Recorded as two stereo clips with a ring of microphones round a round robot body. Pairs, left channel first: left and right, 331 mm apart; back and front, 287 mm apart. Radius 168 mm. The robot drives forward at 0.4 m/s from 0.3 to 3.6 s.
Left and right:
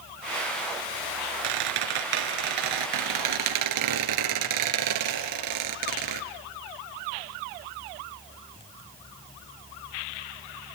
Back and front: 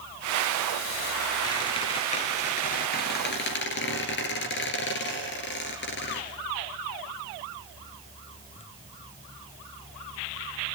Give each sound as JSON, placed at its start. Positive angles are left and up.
{"t": 1.4, "sound": "a squeak", "azimuth_deg": -100, "distance_m": 2.0}